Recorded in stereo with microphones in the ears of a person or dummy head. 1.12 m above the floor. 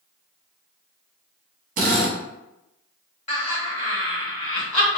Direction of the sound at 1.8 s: 40° right (ahead or behind).